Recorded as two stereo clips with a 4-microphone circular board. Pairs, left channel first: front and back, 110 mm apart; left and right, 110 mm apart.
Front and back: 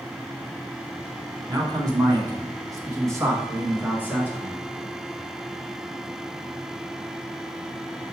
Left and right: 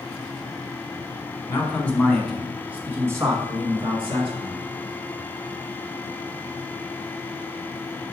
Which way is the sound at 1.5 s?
150° left.